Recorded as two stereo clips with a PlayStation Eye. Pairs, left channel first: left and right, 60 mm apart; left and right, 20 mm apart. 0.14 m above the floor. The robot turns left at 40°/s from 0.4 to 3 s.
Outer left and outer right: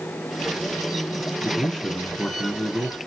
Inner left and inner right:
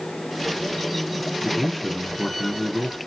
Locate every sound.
1.4 s a man speaking: 20° left (ahead or behind), 1.1 m; by 3.0 s 5° left (ahead or behind), 1.1 m